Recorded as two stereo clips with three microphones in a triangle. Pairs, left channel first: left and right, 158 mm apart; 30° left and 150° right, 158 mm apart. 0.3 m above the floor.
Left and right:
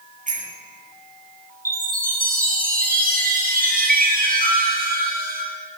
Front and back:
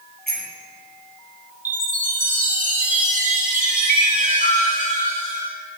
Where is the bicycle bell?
125° right, 5.5 m.